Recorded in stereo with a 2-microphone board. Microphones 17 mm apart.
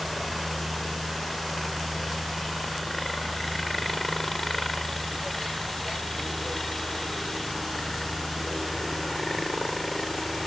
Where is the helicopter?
10° left (ahead or behind); by 10.5 s 25° left (ahead or behind).